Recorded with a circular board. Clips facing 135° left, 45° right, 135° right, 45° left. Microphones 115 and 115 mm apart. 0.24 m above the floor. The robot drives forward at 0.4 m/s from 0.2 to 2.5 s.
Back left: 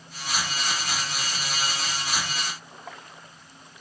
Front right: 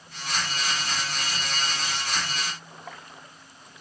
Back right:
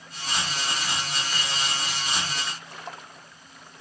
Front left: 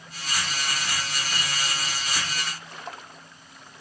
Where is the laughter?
No laughter in this recording.